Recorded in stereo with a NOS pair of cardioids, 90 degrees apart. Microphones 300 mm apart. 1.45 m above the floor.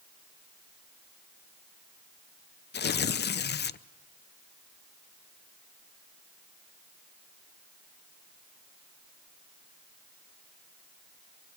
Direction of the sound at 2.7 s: 35° left.